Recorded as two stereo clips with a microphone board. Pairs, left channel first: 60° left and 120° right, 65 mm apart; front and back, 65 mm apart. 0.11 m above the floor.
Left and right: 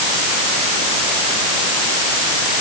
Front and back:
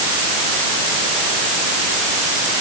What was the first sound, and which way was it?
Only background noise.